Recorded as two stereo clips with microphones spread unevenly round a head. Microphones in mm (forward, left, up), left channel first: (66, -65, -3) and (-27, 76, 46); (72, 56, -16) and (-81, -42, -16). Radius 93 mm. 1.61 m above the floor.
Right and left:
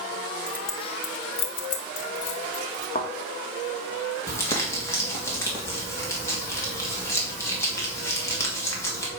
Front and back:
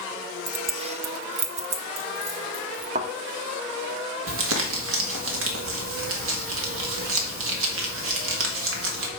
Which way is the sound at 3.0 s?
120° right.